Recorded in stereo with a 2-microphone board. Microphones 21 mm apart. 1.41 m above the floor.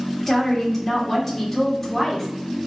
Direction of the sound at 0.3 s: 15° left (ahead or behind).